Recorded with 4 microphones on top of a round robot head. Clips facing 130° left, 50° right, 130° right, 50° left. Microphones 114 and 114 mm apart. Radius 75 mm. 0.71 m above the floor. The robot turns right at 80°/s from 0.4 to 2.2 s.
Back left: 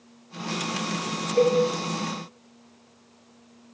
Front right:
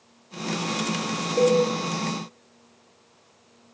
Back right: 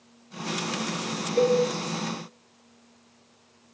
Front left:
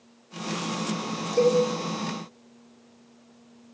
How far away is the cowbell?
About 2.5 m.